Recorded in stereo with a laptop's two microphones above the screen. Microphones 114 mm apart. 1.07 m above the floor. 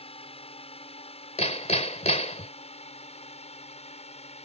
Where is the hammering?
75° left (ahead or behind).